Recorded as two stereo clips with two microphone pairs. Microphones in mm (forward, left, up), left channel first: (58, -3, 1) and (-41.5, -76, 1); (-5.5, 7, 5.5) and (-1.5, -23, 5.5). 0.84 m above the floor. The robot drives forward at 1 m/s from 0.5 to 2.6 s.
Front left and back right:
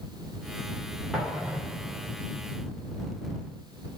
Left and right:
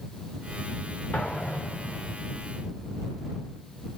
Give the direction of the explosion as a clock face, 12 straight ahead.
8 o'clock.